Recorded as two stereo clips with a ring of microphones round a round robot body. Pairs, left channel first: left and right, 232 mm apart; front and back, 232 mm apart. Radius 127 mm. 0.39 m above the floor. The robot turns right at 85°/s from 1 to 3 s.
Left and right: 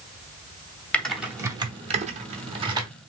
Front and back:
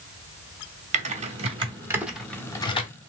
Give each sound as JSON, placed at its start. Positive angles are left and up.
{"t": 0.9, "sound": "typing on a keyboard", "azimuth_deg": 170, "distance_m": 0.8}